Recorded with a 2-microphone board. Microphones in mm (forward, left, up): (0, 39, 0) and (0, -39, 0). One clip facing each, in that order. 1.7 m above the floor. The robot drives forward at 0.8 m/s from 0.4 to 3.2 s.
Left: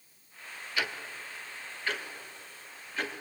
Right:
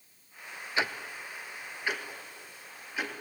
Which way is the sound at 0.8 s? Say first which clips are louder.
Right 3 dB; 25° right (ahead or behind).